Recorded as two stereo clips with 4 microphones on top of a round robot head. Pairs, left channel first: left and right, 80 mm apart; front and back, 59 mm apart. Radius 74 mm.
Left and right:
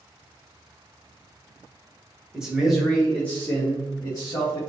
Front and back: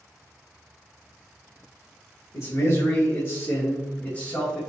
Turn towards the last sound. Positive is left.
turn(degrees=75)